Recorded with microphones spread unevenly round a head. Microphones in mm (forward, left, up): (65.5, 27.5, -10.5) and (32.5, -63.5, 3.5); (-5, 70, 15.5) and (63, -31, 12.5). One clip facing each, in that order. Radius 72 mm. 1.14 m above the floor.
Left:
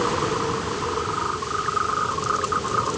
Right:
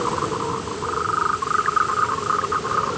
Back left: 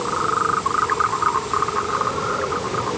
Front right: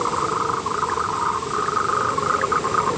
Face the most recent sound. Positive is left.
No sound to turn to.